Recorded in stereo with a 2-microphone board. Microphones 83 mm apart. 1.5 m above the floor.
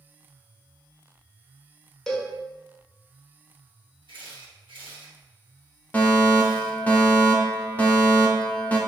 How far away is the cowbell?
About 0.9 m.